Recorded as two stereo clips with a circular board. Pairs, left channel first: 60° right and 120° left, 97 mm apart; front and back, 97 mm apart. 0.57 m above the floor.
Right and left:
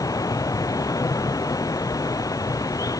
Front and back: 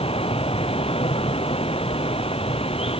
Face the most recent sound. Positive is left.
turn(degrees=-5)